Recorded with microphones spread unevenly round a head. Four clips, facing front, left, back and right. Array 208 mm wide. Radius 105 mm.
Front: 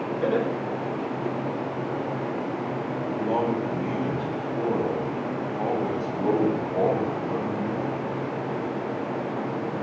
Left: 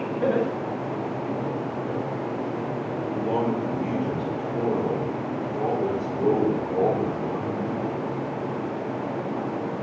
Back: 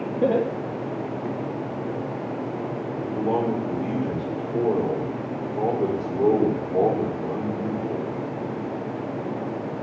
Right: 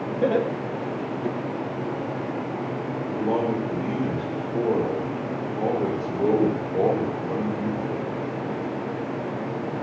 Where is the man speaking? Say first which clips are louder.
Right 1 dB, back 2 dB; straight behind, 4 m.